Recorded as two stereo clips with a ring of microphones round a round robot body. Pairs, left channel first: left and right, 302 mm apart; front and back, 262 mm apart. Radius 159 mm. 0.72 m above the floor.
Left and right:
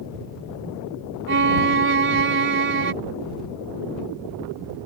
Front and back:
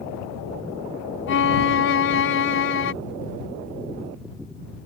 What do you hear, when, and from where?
1.3 s a violin: 40° right